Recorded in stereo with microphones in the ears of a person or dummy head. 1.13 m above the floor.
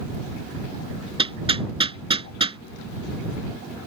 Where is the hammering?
25° right (ahead or behind).